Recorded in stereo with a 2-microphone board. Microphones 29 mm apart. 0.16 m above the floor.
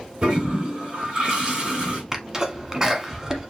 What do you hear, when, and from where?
0.2 s a toilet flushing: 35° right (ahead or behind), 2.5 m
2.1 s a sneeze: 20° right (ahead or behind), 1.1 m